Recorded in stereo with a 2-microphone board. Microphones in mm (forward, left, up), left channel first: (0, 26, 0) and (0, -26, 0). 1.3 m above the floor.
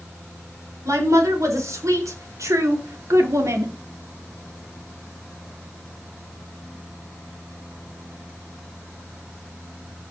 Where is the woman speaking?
85° right, 4.5 m; by 3.8 s 75° right (ahead or behind), 2.5 m.